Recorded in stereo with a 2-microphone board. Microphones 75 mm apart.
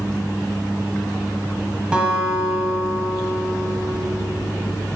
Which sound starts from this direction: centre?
A guitar, at 1.9 s.